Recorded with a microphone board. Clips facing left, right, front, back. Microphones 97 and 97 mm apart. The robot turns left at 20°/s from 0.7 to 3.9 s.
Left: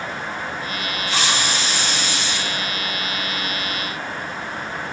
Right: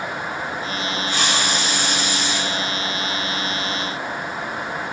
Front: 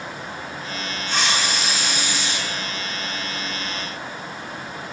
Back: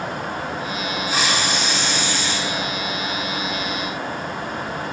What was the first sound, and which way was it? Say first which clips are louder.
A hiss: left 1 dB, even; 100° left.